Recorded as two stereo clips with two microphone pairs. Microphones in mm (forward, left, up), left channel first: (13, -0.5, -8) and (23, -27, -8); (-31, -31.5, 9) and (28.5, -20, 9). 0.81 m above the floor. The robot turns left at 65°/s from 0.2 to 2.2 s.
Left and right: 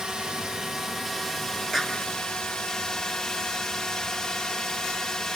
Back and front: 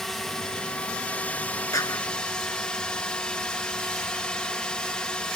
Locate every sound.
0.0 s a drone: 90° right; by 5.4 s 140° left
1.7 s a clap: 150° right; by 2.0 s 170° right